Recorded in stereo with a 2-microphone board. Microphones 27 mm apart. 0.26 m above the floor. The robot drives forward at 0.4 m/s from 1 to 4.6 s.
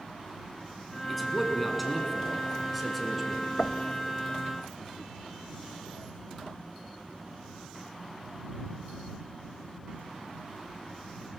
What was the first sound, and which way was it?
A man speaking, centre (ahead or behind).